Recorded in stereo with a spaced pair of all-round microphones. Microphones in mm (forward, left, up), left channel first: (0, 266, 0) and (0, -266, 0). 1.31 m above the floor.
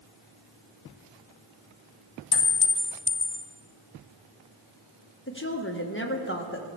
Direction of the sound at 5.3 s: 20° left (ahead or behind).